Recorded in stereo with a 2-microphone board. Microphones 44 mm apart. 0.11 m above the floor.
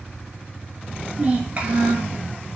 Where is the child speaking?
35° right (ahead or behind), 0.8 m.